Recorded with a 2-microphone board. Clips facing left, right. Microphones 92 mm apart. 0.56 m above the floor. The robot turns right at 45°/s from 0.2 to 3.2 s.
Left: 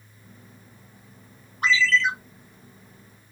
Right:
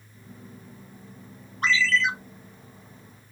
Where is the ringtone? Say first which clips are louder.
Left 2 dB; 10° left (ahead or behind), 1.4 m; by 2.1 s 10° right (ahead or behind), 1.4 m.